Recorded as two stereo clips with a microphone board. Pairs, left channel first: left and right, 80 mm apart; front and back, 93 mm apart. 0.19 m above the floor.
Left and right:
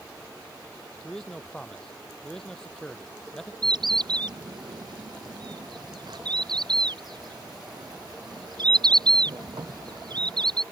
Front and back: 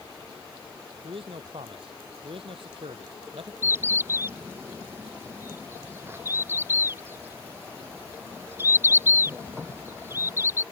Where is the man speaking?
170° left.